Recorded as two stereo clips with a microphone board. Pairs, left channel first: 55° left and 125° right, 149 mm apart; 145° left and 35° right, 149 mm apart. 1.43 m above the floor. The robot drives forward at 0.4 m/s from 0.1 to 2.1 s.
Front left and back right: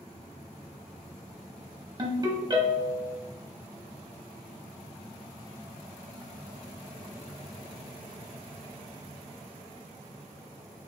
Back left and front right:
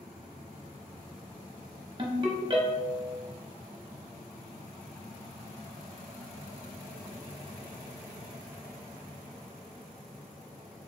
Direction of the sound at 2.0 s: 75° right.